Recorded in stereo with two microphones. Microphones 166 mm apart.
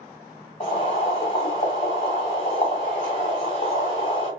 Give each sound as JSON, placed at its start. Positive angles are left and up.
{"t": 0.6, "sound": "boiling", "side_deg": 40, "distance_m": 1.8}